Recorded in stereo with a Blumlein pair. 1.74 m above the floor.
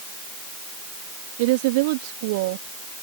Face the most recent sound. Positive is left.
turn(degrees=-50)